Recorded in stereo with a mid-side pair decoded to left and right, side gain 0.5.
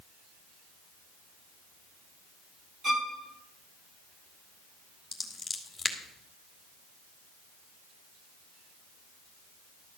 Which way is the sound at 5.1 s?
15° left.